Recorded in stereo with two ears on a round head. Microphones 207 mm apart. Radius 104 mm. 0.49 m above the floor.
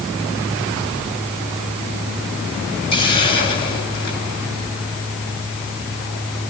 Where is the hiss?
20° left (ahead or behind), 6.5 m.